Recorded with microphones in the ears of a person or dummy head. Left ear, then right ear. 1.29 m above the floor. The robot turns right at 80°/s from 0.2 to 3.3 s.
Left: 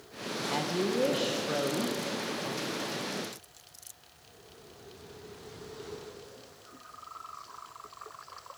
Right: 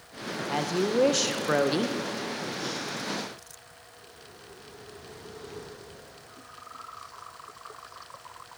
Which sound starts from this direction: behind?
A woman speaking, at 0.5 s.